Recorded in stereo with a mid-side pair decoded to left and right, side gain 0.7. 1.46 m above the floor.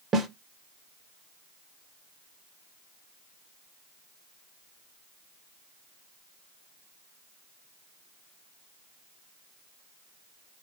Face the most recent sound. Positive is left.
turn(degrees=-30)